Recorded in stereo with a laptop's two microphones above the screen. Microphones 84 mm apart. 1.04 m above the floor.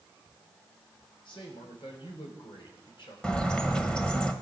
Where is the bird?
10° left (ahead or behind), 1.0 m.